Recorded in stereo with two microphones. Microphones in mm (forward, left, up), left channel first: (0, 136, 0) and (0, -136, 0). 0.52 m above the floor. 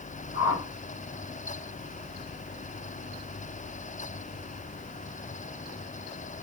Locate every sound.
0.3 s a whoosh: 55° left (ahead or behind), 3 m